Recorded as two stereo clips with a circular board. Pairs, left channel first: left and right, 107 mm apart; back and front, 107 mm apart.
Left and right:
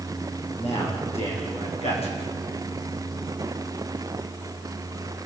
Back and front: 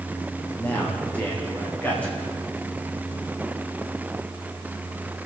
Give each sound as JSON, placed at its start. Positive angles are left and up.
{"t": 0.6, "sound": "a man speaking", "azimuth_deg": 100, "distance_m": 9.0}